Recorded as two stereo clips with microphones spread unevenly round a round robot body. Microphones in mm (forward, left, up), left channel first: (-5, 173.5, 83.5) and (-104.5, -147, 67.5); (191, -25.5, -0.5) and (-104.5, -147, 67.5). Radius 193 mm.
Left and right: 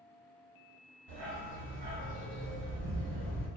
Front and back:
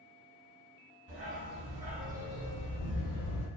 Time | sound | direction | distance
1.1 | a dog barking | 110° right | 1.4 m